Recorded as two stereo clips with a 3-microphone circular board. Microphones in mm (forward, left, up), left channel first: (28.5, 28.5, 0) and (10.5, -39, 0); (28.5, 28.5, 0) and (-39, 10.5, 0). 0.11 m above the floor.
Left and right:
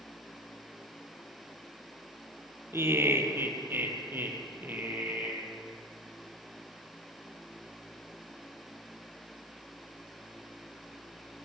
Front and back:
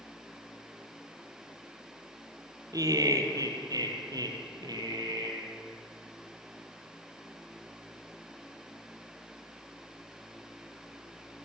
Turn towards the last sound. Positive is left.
turn(degrees=-170)